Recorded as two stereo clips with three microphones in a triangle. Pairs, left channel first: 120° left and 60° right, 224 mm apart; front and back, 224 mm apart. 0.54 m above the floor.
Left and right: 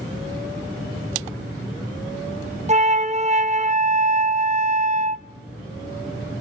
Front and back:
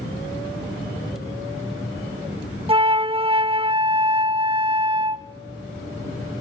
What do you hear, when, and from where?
2.7 s a flute: 120° right, 0.6 m